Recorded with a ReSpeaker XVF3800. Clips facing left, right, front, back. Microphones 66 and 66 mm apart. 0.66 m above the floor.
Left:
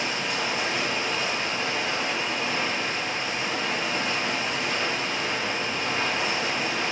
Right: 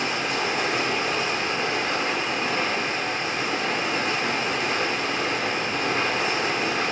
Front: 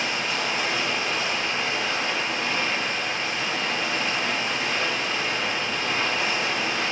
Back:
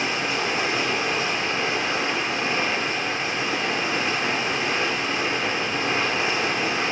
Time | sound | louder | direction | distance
0.0 | running water | right 3 dB, back 2 dB | 120° right | 1.8 m